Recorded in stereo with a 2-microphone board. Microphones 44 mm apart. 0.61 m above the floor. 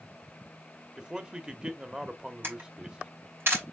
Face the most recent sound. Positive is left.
turn(degrees=-60)  # may be behind; listen again after turning